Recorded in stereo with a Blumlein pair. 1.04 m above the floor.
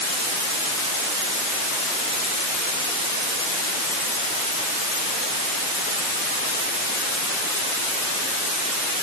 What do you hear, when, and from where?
Only background noise.